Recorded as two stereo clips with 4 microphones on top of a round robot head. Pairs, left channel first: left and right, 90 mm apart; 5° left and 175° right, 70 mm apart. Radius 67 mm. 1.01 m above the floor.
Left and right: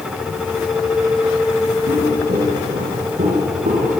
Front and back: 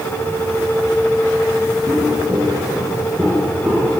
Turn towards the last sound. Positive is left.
turn(degrees=-85)